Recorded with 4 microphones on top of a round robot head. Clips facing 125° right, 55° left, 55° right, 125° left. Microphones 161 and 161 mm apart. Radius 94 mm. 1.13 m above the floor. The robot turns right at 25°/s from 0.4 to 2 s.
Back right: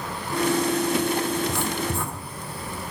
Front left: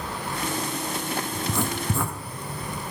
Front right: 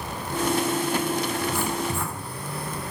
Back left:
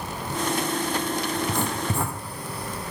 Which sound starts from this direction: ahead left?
Writing, at 1.4 s.